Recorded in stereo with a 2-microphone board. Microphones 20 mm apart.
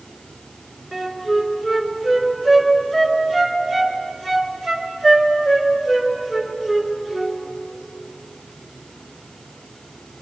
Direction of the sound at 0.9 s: 20° left (ahead or behind).